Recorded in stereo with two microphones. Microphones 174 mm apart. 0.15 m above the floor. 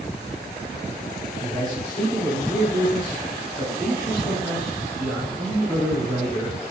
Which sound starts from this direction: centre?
A man speaking, at 1.4 s.